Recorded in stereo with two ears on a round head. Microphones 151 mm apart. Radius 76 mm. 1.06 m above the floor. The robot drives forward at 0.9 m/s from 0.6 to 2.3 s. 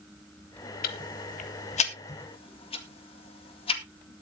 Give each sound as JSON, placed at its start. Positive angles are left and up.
{"t": 0.8, "sound": "ticking", "side_deg": 60, "distance_m": 1.3}